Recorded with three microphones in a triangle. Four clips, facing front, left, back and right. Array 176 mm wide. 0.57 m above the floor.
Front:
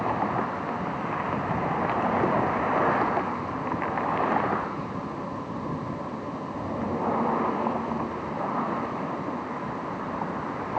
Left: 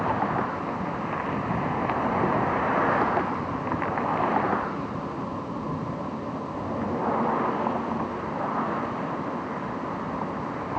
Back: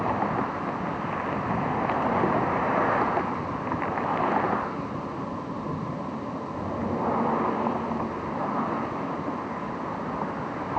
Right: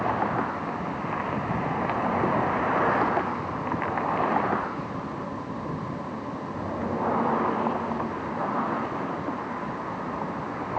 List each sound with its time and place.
Only background noise.